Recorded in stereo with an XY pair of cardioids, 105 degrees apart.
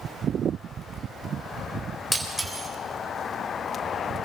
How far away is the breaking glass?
About 3.5 m.